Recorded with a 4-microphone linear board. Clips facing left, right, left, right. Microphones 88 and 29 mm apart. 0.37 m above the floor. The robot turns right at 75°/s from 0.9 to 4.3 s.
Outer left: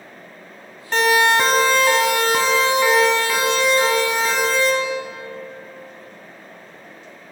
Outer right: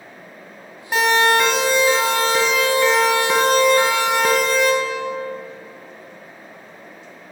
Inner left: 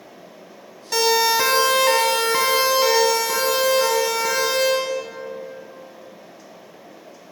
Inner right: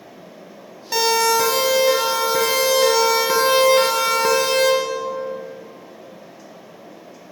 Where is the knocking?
No knocking in this recording.